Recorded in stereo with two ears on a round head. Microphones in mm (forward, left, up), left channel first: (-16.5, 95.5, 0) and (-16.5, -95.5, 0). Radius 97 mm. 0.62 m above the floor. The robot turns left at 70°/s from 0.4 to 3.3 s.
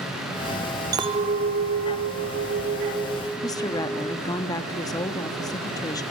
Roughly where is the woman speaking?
Centre.